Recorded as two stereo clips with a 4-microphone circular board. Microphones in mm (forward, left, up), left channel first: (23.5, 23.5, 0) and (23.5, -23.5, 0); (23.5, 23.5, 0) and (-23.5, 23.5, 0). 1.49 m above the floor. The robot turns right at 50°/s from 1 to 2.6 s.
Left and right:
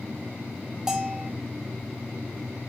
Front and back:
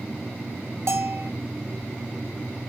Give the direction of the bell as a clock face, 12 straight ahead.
6 o'clock.